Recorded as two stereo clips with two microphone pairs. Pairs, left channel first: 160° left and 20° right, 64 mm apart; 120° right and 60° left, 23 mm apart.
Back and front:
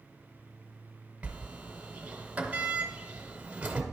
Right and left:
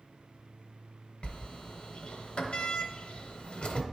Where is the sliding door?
90° right, 0.8 m.